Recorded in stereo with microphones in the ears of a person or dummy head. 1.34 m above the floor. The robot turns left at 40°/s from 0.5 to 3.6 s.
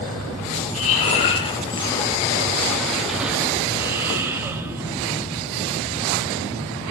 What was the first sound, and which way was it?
Breathing, 95° left.